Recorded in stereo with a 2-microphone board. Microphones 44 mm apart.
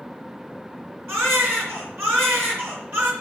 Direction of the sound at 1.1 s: 55° right (ahead or behind).